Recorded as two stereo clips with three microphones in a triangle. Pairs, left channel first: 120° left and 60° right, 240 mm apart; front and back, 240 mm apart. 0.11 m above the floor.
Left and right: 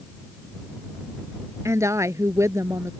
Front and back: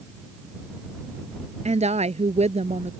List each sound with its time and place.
1.6 s a woman speaking: 135° right